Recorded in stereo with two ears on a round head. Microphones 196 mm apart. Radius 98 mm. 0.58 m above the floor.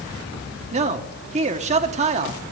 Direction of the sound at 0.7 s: 30° right (ahead or behind).